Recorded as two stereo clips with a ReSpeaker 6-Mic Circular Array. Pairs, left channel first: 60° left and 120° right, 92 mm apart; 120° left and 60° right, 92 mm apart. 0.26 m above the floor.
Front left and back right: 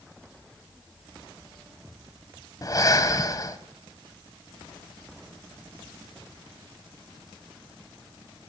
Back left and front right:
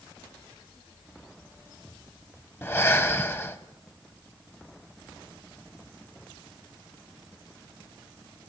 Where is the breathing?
70° left, 1.9 m.